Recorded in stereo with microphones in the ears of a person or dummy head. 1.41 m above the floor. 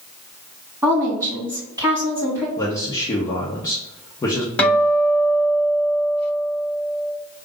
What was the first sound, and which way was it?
A woman speaking, 20° right (ahead or behind).